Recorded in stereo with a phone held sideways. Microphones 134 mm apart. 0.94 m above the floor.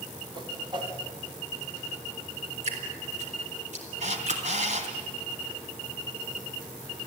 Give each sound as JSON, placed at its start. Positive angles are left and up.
{"t": 0.3, "sound": "a whoosh", "side_deg": -35, "distance_m": 1.8}
{"t": 2.6, "sound": "dripping", "side_deg": -65, "distance_m": 3.5}
{"t": 4.0, "sound": "a camera shutter", "side_deg": -65, "distance_m": 2.5}